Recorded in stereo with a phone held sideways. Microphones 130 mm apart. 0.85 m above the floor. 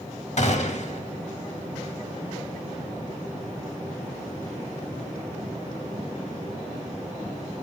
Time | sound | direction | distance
0.4 | a gunshot | 60° left (ahead or behind) | 1.7 m